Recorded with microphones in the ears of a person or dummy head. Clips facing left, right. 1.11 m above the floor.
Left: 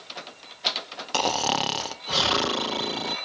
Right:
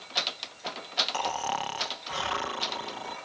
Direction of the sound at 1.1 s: 50° left (ahead or behind).